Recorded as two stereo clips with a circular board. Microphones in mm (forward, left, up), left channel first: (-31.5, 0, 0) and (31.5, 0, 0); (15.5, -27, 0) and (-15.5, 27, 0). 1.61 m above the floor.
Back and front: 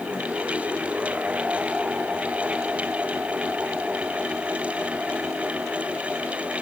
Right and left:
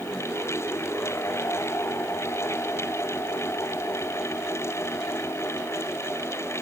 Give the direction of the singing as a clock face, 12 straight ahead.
No singing in this recording.